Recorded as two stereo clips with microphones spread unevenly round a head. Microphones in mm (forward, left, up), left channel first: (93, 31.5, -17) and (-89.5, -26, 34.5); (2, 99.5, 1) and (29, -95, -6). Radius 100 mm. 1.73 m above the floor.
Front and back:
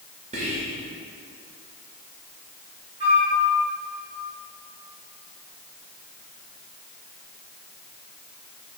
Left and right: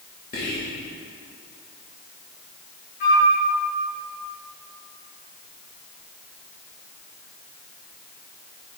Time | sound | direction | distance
0.3 | whispering | 145° left | 1.6 m
3.0 | a flute | 140° left | 3 m